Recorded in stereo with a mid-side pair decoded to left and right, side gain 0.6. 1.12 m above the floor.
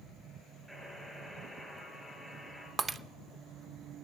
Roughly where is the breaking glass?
Ahead right.